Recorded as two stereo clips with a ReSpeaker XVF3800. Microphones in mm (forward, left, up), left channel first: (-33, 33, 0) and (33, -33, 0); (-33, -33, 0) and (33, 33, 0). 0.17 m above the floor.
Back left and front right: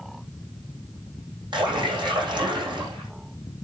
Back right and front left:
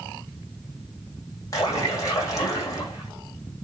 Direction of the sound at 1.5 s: 80° right.